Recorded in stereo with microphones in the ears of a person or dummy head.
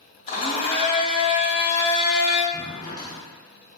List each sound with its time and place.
0.3 s a blender: 30° left (ahead or behind), 0.7 m
2.5 s a drawer: 20° left (ahead or behind), 0.9 m